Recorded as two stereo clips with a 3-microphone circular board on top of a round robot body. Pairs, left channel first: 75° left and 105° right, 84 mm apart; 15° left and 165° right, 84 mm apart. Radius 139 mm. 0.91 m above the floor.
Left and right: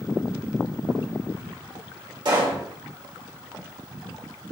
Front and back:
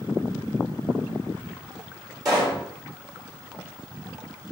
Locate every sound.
2.2 s a pop: 130° right, 2 m